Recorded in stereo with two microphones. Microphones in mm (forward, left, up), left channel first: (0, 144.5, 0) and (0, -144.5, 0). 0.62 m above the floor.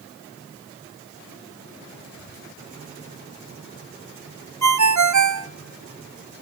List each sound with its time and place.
2.1 s whispering: 30° left (ahead or behind), 5 m
4.6 s a ringtone: 65° right (ahead or behind), 0.6 m